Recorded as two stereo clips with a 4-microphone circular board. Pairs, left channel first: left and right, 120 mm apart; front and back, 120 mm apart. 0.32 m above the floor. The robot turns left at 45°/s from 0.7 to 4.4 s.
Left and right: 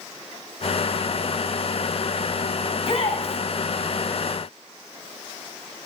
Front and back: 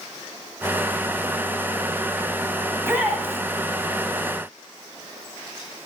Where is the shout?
120° left, 2 m; by 3.4 s 90° left, 2 m.